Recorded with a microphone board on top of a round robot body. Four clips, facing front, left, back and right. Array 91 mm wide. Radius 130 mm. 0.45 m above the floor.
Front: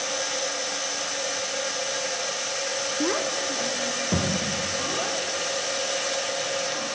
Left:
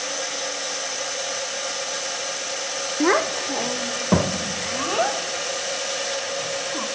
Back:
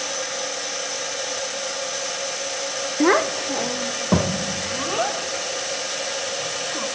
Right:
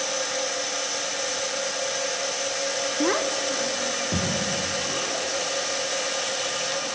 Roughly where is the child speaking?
Behind left.